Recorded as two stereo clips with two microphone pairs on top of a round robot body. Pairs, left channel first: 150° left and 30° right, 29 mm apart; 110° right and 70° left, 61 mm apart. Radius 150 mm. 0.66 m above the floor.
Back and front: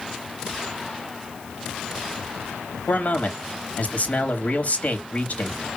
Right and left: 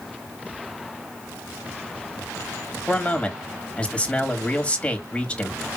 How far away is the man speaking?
About 2.5 m.